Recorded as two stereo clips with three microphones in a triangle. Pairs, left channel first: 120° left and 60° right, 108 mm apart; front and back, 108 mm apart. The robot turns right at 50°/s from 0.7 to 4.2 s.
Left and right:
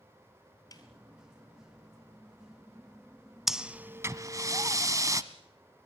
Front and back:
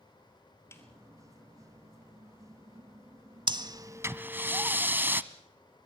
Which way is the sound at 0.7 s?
65° left.